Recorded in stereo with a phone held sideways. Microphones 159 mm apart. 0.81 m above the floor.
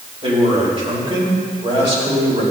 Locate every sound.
0.2 s a man speaking: 35° right (ahead or behind), 3.5 m